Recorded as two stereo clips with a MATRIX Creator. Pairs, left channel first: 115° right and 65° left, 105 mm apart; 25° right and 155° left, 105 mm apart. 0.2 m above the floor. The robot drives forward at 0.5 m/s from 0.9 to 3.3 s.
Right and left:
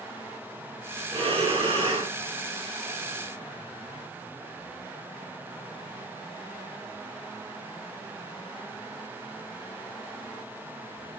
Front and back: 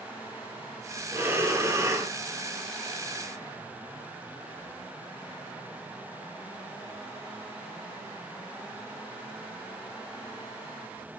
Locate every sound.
1.1 s breathing: 90° left, 3 m; by 2.1 s 100° left, 3 m